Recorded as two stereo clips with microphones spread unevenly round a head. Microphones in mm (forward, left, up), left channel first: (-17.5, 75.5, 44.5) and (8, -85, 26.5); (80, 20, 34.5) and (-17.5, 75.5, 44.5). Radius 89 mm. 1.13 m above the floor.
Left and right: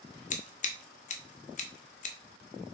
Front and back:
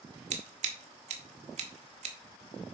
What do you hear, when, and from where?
0.3 s scissors: 140° left, 1.0 m